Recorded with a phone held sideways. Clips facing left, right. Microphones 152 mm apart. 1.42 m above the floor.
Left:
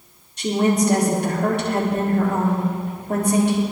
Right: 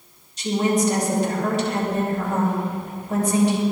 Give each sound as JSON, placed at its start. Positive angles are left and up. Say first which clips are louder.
{"t": 0.4, "sound": "a woman speaking", "louder": "left 2 dB", "side_deg": 55, "distance_m": 3.0}